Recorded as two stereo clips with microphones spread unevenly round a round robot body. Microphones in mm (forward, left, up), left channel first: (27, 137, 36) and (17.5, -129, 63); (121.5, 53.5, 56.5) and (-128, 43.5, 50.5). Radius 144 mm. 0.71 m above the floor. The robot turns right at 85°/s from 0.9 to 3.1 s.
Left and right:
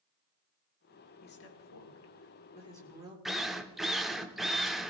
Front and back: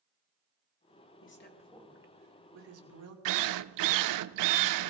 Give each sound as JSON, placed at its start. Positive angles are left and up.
{"t": 1.2, "sound": "a woman speaking", "azimuth_deg": 35, "distance_m": 2.5}
{"t": 3.2, "sound": "a drill", "azimuth_deg": 180, "distance_m": 0.6}